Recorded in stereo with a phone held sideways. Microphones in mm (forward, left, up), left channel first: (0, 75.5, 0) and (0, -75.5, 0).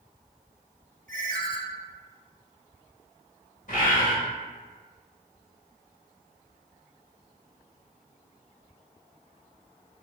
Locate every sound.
1.1 s a ringtone: 65° right (ahead or behind), 1.0 m
3.7 s a bird: 60° left (ahead or behind), 1.5 m